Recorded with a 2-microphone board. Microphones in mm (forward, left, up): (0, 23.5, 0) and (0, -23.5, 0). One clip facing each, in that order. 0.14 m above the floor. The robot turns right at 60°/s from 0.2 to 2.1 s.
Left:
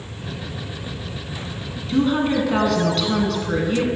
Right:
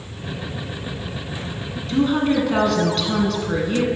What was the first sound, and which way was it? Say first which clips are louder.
A woman speaking: even; 5° left (ahead or behind).